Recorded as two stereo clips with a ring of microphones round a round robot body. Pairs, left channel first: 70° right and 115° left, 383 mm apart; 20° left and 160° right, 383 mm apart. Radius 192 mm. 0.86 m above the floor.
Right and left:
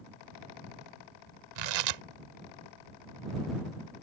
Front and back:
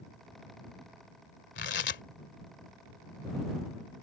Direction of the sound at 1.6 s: 85° left.